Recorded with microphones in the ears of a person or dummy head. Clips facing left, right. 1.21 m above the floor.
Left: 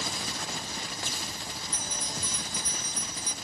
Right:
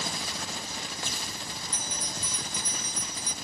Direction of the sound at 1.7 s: 60° right (ahead or behind).